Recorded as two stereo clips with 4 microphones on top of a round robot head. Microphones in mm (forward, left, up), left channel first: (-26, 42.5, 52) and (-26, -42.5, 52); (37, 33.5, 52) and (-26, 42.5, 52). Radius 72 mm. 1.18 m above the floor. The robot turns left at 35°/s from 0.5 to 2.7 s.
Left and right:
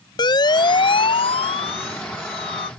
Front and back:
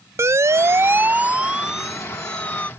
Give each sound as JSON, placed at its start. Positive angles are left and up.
{"t": 0.2, "sound": "a siren", "azimuth_deg": 125}